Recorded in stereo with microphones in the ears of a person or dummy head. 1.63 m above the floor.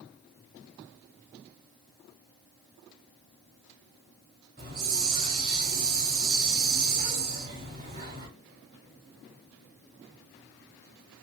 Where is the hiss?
35° right (ahead or behind), 1.6 m.